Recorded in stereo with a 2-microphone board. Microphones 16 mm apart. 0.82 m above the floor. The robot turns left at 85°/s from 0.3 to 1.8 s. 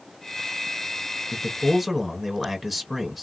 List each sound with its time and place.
1.3 s a man speaking: 30° left, 1.2 m; by 3.2 s 15° right, 1.2 m